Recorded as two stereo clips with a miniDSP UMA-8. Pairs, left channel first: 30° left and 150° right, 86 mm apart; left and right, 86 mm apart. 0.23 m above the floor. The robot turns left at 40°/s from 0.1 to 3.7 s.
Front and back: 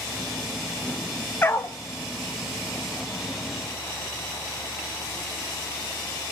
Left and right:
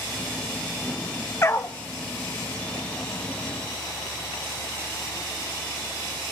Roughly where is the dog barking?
Left.